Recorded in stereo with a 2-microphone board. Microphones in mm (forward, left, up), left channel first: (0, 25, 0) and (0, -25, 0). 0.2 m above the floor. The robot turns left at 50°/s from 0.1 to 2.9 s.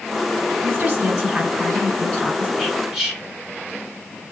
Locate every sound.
0.6 s a woman speaking: 140° right, 1.2 m; by 2.5 s 130° left, 1.2 m
2.6 s whispering: 5° left (ahead or behind), 1.8 m; by 3.2 s 10° right (ahead or behind), 1.8 m